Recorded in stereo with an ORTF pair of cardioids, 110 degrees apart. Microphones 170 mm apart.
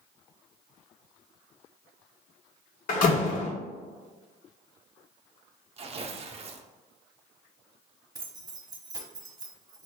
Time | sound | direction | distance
2.9 | a door slam | 55° left | 1.1 m
5.8 | tearing paper | 35° right | 0.6 m
8.2 | keys jangling | 20° right | 1.0 m